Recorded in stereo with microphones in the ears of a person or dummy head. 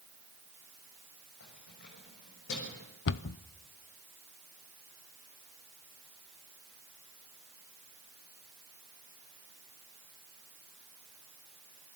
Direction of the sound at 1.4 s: 65° left (ahead or behind).